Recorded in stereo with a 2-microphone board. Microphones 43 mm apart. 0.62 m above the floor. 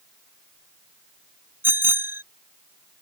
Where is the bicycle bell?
70° right (ahead or behind).